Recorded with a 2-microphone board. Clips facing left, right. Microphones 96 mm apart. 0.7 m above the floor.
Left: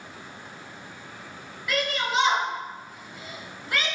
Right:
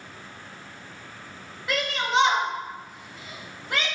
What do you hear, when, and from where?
1.7 s a shout: 30° right (ahead or behind), 4.5 m